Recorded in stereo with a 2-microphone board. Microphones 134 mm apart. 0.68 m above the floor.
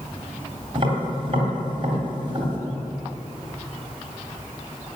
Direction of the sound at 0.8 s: 40° right (ahead or behind).